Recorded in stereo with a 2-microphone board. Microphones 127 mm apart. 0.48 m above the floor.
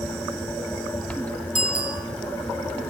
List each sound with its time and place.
1.6 s a bicycle bell: 85° left, 6.5 m